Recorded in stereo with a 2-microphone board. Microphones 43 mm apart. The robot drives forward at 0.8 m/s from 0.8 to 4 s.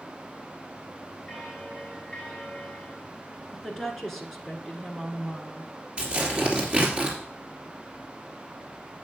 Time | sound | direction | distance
1.3 | a bell | 15° left (ahead or behind) | 2.5 m
3.5 | a woman speaking | 5° left (ahead or behind) | 1.2 m
6.0 | tearing paper | 25° right (ahead or behind) | 2.5 m